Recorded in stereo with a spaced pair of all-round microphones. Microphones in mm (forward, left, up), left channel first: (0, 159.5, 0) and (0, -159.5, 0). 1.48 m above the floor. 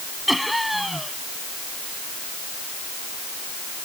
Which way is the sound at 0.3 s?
Centre (ahead or behind).